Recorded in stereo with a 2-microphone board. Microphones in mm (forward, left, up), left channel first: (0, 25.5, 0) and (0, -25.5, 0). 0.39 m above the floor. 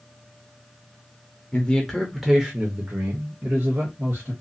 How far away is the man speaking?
About 0.8 m.